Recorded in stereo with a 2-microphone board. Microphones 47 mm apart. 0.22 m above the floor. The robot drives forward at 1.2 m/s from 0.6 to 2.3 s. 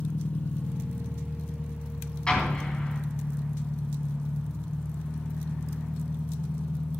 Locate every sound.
0.0 s an engine running: 40° left (ahead or behind), 0.9 m; by 7.0 s 10° left (ahead or behind), 3 m
2.3 s an explosion: 20° left (ahead or behind), 2 m